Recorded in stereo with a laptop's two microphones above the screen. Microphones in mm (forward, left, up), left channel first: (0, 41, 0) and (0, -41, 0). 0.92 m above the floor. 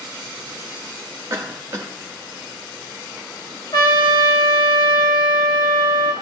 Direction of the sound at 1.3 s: 35° right (ahead or behind).